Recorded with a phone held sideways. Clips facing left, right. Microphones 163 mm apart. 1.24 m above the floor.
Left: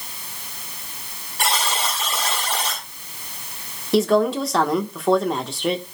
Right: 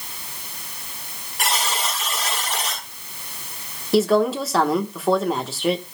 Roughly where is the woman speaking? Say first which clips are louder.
Even; centre.